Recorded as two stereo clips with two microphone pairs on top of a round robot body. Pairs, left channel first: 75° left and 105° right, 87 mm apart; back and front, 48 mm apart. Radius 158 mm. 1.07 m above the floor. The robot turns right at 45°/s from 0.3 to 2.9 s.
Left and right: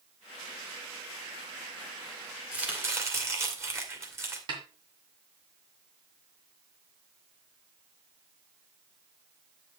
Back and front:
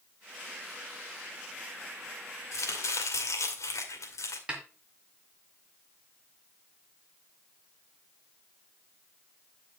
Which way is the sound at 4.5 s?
70° right.